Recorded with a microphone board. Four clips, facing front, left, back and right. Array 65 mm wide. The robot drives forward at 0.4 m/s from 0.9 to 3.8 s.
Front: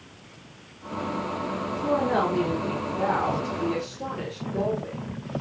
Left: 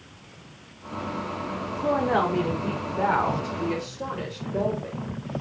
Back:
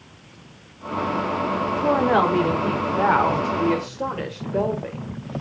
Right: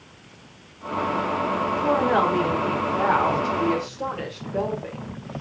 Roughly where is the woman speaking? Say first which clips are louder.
Right 1 dB, back 5 dB; behind.